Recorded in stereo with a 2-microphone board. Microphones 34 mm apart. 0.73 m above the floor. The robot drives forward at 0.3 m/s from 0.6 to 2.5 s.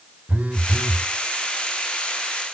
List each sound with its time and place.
0.3 s a phone buzzing: 45° right (ahead or behind), 0.7 m; by 1.1 s 40° right (ahead or behind), 0.8 m